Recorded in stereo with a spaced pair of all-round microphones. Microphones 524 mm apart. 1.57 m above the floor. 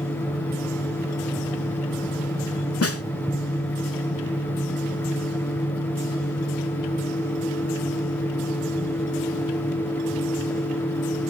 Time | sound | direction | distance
0.0 | a fan | 5° left (ahead or behind) | 1.1 m
2.8 | a snare drum | 30° left (ahead or behind) | 0.6 m